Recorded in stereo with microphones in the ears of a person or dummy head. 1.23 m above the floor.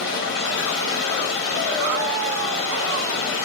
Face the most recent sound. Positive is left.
turn(degrees=50)  # may be behind; listen again after turning